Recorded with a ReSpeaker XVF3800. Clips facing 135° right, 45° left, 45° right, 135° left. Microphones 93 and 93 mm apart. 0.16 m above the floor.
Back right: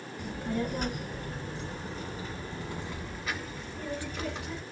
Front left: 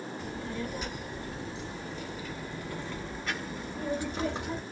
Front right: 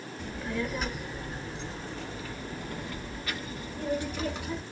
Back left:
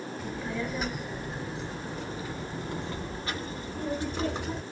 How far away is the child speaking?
About 2 m.